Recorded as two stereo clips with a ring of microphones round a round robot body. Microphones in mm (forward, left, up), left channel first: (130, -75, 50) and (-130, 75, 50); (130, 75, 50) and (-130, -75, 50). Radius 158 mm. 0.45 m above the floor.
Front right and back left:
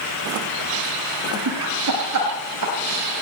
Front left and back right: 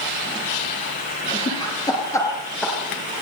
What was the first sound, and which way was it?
Laughter, 105° left.